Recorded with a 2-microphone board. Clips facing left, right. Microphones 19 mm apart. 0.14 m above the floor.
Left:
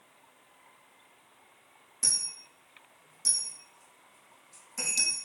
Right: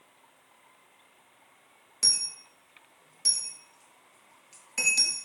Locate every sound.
2.0 s a dropped coin: 65° right (ahead or behind), 0.7 m